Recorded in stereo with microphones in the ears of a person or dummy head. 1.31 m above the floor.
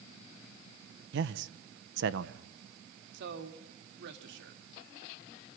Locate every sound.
1.1 s a man speaking: 70° right (ahead or behind), 0.8 m
3.1 s a man speaking: 75° right (ahead or behind), 2.0 m